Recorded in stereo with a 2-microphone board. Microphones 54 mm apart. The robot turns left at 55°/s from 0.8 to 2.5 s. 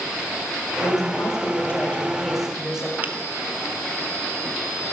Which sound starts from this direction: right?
A finger snap, at 3.0 s.